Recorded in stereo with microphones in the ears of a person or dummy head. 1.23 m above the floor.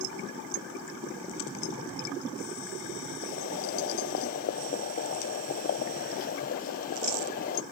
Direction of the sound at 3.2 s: 45° left (ahead or behind).